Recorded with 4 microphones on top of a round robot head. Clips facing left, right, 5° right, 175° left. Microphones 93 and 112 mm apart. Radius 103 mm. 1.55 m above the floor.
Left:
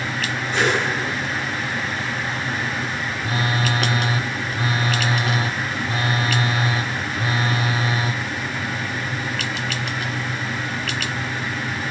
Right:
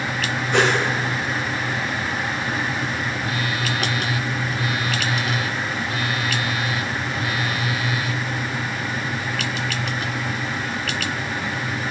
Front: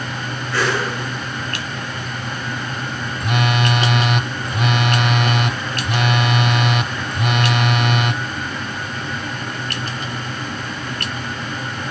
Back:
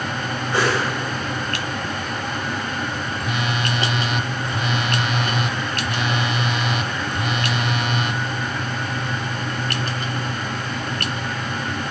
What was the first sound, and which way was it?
A whoosh, 110° right.